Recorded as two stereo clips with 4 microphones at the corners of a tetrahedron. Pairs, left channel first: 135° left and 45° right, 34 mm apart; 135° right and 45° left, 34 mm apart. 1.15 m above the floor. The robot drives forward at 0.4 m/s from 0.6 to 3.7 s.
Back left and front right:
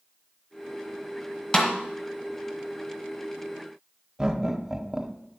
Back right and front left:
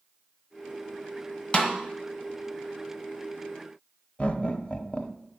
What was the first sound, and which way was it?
A snare drum, 170° right.